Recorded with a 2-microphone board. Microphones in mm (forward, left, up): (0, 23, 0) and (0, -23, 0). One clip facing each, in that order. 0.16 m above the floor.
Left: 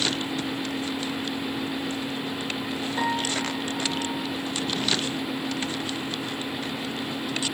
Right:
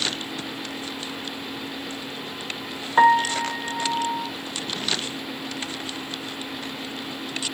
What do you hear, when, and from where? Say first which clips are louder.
3.0 s a piano: right 12 dB; 55° right (ahead or behind), 0.7 m